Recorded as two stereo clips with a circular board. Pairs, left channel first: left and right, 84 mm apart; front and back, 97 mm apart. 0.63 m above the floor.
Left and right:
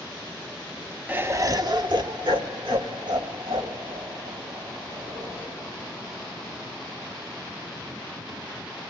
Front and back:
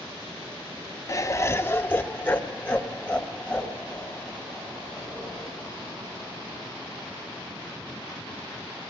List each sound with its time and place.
1.1 s laughter: 30° right, 0.7 m; by 5.6 s 80° right, 5.5 m